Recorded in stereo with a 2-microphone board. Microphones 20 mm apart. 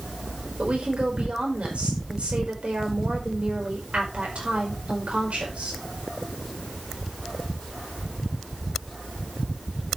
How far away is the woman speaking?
About 5 m.